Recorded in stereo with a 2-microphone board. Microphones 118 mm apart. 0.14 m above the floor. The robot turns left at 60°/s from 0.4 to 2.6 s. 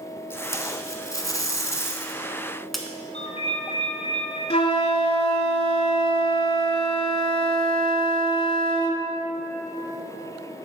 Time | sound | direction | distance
0.3 | tape being pulled | 135° left | 0.7 m
3.1 | a ringtone | 70° left (ahead or behind) | 1.9 m
4.5 | a flute | 55° left (ahead or behind) | 0.6 m